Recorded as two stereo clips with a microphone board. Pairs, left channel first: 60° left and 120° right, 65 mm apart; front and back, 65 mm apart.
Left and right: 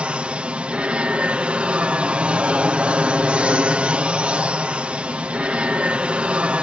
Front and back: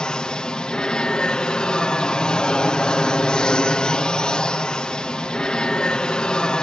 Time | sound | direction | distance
0.0 | an aircraft | 65° right | ?